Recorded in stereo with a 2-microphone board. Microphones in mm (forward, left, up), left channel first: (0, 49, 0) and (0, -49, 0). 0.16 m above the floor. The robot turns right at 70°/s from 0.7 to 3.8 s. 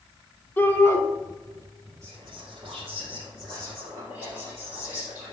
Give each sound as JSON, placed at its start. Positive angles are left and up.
{"t": 0.6, "sound": "a shout", "side_deg": 20, "distance_m": 1.0}
{"t": 2.0, "sound": "whispering", "azimuth_deg": -145, "distance_m": 3.0}